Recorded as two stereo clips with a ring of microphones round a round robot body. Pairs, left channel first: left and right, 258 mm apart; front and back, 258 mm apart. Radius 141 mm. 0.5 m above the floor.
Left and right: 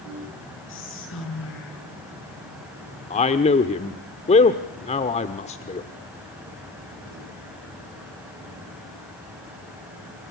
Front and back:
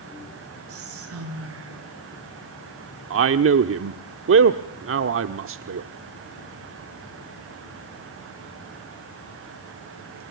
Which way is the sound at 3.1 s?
155° left.